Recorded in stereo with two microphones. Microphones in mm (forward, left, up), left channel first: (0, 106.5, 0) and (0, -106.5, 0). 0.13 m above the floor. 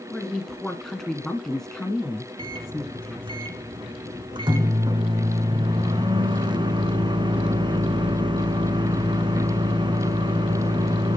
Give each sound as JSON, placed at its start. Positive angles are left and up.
{"t": 0.1, "sound": "a woman speaking", "side_deg": 0, "distance_m": 1.9}
{"t": 2.4, "sound": "a microwave", "side_deg": -25, "distance_m": 1.0}